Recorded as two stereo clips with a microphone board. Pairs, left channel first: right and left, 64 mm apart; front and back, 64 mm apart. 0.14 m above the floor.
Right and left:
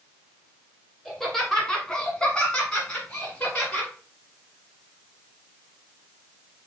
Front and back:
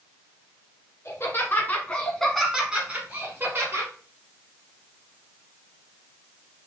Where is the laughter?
10° right, 1.5 m; by 3.9 s 155° right, 1.7 m.